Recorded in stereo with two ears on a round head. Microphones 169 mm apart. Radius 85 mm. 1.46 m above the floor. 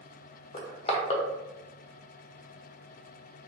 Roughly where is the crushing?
Left.